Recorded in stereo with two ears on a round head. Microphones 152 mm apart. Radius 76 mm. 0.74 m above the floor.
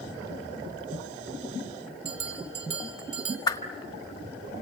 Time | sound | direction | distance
2.0 | a bell | 35° right (ahead or behind) | 3.5 m
3.5 | a whoosh | 20° left (ahead or behind) | 1.5 m